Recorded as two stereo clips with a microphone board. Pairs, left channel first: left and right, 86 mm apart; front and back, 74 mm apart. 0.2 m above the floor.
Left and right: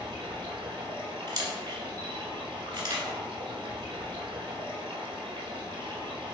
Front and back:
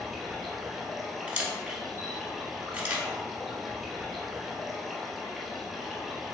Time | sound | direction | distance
0.0 | running water | 95° right | 1.4 m
1.3 | a camera shutter | 115° right | 1.4 m